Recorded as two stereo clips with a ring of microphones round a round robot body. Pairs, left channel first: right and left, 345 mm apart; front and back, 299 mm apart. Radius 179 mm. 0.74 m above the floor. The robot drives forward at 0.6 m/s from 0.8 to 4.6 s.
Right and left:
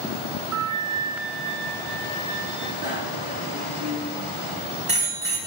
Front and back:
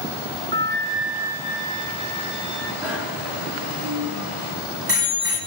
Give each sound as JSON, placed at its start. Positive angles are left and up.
{"t": 0.5, "sound": "a flute", "azimuth_deg": 125, "distance_m": 0.7}
{"t": 2.8, "sound": "a bicycle bell", "azimuth_deg": 160, "distance_m": 6.0}